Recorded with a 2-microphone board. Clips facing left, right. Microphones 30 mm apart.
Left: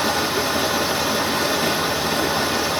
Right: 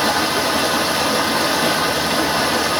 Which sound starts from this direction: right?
Running water, at 0.0 s.